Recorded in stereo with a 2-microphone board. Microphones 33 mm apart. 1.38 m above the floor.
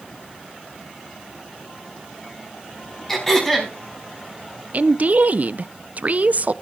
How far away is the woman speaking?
About 0.5 m.